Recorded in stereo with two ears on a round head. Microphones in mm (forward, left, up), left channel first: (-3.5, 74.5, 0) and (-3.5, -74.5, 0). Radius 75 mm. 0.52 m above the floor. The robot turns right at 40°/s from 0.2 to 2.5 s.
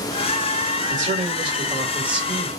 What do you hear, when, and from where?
0.9 s a man speaking: 55° right, 3 m; by 2.5 s 5° left, 3 m